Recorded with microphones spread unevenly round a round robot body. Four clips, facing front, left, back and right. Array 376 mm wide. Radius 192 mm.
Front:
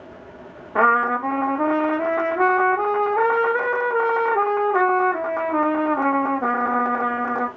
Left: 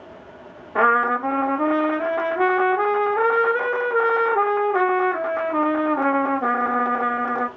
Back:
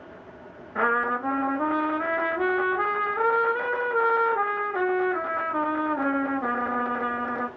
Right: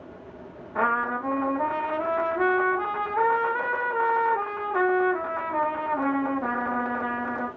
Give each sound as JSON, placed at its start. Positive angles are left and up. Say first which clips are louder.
{"t": 0.8, "sound": "a trumpet", "louder": "left 7 dB, front 7 dB", "azimuth_deg": 25, "distance_m": 0.6}